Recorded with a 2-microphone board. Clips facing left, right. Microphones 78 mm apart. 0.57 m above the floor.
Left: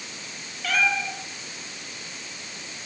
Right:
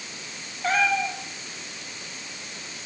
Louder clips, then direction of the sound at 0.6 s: Right 2 dB; 30° right (ahead or behind).